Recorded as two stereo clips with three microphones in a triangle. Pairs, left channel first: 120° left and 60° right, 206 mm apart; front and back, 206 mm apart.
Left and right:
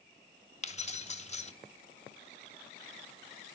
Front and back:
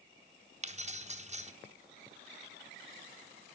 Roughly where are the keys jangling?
Behind left.